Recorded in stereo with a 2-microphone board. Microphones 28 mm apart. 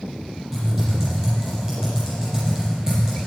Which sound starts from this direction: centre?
Typing on a keyboard, at 0.5 s.